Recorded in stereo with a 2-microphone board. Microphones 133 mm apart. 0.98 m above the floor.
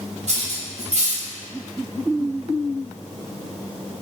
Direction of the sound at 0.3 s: 65° right (ahead or behind).